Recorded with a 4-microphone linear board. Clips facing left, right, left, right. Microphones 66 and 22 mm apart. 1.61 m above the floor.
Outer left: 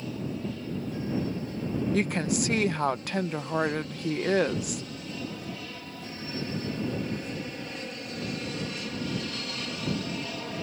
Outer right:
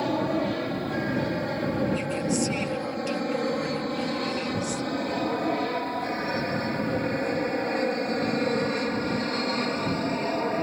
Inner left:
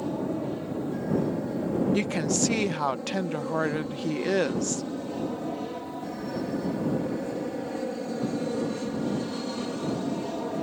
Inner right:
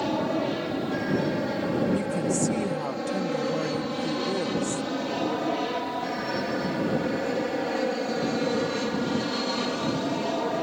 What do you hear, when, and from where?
0.0 s an aircraft: 70° right (ahead or behind); by 10.6 s 40° right (ahead or behind)
1.9 s a woman speaking: 60° left (ahead or behind)